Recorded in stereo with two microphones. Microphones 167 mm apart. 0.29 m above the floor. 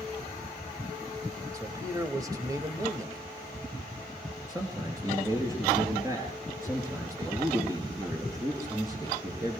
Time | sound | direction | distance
1.5 | a man speaking | 20° right (ahead or behind) | 1.1 m
4.5 | a man speaking | 20° right (ahead or behind) | 3.5 m